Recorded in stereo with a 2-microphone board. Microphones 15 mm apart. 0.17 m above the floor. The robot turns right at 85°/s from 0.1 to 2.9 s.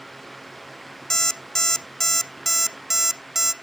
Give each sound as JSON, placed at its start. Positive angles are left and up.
{"t": 1.1, "sound": "an alarm clock", "azimuth_deg": 65, "distance_m": 0.6}